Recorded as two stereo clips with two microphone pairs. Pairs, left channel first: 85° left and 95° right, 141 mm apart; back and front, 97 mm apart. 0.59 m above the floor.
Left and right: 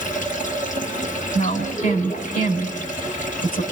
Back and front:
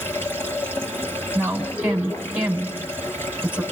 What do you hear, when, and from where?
0.0 s running water: 110° left, 6 m
1.4 s a woman speaking: 75° left, 4 m